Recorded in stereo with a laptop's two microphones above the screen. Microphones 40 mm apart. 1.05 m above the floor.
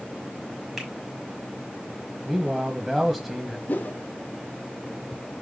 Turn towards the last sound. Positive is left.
turn(degrees=50)  # may be behind; listen again after turning